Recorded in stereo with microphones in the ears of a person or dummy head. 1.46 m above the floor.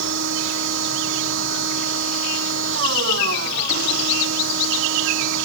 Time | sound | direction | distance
0.0 | a machine running | 80° right | ?